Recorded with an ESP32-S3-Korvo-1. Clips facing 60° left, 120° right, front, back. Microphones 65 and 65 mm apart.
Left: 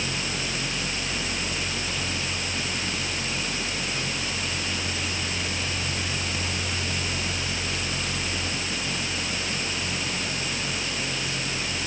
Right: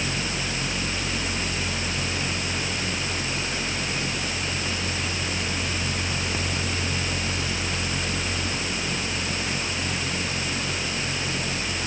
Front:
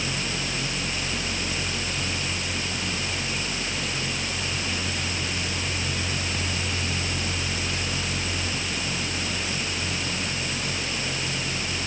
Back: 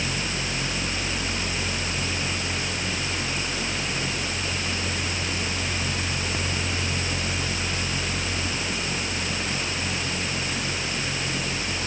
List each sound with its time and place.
Only background noise.